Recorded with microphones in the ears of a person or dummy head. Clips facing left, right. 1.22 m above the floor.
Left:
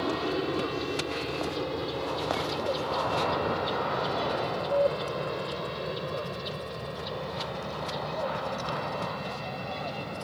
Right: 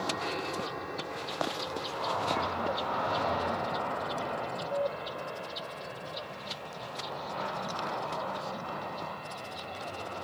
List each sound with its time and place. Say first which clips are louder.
0.0 s an aircraft: left 6 dB; 35° left (ahead or behind); by 10.2 s 55° left (ahead or behind)